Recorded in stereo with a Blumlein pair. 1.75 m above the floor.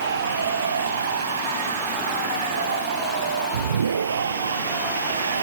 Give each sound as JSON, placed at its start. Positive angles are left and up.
{"t": 0.0, "sound": "a machine running", "azimuth_deg": -70}